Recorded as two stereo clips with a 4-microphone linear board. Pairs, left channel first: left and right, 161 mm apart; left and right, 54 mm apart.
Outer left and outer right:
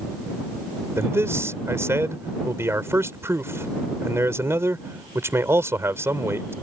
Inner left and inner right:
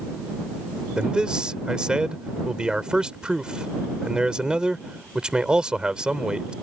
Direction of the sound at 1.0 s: 15° right (ahead or behind).